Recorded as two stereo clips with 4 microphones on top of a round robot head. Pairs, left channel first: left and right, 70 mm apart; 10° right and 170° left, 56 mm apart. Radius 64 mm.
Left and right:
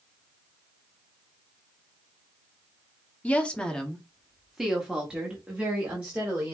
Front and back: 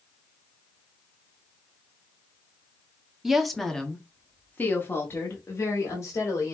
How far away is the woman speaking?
About 1.3 m.